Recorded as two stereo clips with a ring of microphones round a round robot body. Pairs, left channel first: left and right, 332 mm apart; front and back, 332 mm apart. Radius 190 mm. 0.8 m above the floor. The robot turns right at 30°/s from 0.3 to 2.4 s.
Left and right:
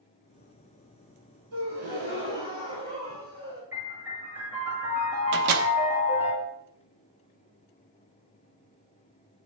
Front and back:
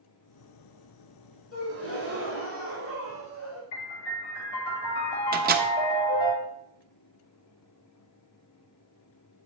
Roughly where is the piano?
Ahead.